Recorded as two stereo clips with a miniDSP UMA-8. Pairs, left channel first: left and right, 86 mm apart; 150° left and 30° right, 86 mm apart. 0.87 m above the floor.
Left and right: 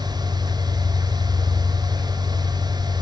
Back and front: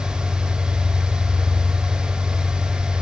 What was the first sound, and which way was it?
An engine running, 50° left.